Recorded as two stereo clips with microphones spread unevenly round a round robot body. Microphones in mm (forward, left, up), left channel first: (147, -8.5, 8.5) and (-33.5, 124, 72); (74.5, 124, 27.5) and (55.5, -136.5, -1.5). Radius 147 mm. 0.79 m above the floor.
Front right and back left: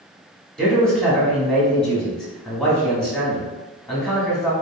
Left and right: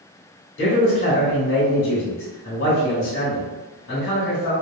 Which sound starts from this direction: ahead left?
A man speaking, at 0.6 s.